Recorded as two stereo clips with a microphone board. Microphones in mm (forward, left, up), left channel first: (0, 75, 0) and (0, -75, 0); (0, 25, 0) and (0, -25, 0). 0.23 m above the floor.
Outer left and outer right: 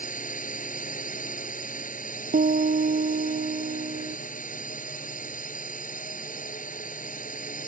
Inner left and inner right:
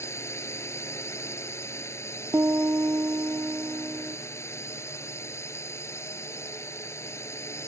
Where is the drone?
65° left (ahead or behind).